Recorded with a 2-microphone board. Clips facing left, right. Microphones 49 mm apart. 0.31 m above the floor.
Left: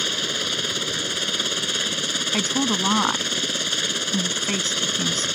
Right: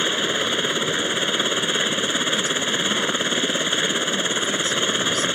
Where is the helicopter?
25° right (ahead or behind).